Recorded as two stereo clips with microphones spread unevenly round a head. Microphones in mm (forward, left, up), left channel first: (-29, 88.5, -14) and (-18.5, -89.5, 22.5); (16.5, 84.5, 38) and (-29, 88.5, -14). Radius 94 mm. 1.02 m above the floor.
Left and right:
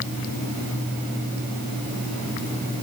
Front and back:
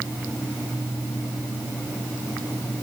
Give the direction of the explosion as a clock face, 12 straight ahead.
No explosion in this recording.